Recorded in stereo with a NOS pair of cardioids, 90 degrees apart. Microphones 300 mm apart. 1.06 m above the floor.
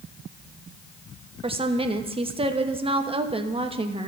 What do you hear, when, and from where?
1.4 s a woman speaking: 20° right, 1.1 m